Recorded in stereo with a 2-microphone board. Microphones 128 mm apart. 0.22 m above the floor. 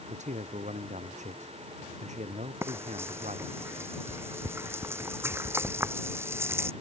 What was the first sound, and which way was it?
A man speaking, 65° right (ahead or behind).